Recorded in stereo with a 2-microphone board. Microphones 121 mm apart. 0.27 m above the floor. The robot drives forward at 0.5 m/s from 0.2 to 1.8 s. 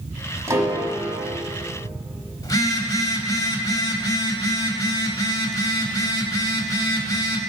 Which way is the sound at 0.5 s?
25° right (ahead or behind).